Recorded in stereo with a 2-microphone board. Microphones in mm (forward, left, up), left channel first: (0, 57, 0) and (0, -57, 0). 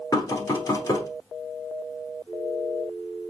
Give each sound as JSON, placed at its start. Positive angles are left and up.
{"t": 0.1, "sound": "knocking", "side_deg": 30, "distance_m": 0.9}